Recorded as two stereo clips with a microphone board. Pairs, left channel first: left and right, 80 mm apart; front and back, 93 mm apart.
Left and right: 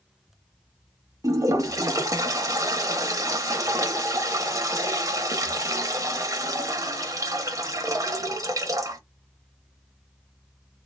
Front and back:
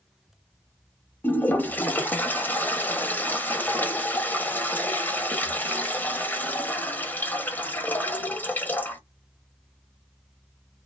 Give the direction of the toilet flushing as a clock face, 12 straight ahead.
2 o'clock.